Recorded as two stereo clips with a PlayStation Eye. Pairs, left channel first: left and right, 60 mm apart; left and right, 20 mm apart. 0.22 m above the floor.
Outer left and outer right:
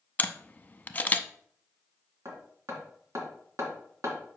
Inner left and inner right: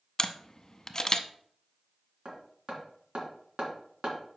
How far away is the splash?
No splash in this recording.